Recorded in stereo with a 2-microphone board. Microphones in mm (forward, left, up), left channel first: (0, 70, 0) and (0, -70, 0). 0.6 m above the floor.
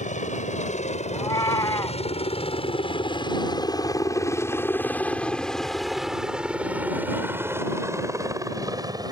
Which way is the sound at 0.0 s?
60° left (ahead or behind).